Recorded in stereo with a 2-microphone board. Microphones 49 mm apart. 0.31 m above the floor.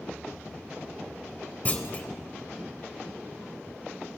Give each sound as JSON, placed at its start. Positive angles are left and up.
{"t": 1.6, "sound": "a clunk", "side_deg": 30, "distance_m": 0.8}